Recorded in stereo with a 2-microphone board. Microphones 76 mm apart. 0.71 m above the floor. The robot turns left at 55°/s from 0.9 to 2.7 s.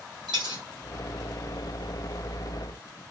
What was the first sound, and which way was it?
A dropped coin, 75° right (ahead or behind).